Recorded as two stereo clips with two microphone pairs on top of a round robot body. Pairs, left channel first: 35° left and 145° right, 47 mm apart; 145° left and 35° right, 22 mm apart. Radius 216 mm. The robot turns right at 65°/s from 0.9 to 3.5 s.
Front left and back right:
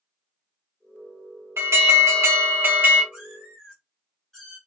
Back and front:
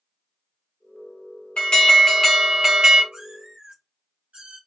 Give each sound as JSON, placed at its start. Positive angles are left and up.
{"t": 1.6, "sound": "an alarm", "azimuth_deg": -175, "distance_m": 1.3}
{"t": 3.1, "sound": "a cat meowing", "azimuth_deg": -70, "distance_m": 1.0}